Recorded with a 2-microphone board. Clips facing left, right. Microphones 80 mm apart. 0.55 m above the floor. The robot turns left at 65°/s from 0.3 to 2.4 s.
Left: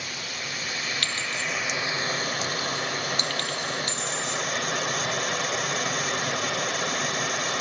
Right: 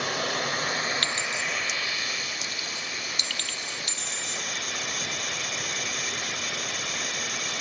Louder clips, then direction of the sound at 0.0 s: Right 7 dB; 105° right.